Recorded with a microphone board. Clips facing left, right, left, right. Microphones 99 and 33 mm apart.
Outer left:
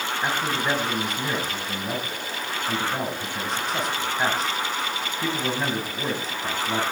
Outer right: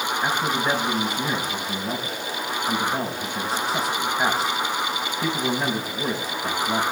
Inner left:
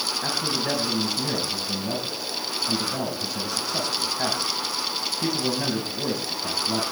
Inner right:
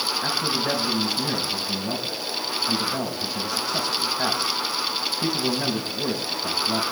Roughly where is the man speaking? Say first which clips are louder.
Outer right 1 dB, inner right 1 dB; centre.